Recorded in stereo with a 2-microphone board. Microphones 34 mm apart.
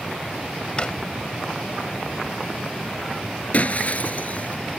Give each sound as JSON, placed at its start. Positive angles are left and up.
{"t": 0.8, "sound": "a drawer", "side_deg": 30}
{"t": 3.5, "sound": "breaking glass", "side_deg": 45}